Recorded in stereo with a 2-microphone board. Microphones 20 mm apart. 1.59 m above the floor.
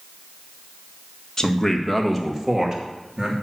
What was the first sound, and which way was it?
A man speaking, 30° left (ahead or behind).